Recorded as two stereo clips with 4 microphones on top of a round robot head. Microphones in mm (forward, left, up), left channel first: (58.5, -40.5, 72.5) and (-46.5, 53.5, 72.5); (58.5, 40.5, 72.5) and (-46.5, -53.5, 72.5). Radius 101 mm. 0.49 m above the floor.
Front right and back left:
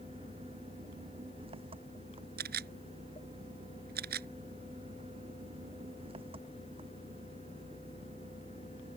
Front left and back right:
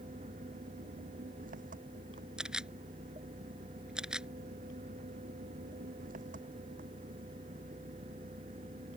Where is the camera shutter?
140° left.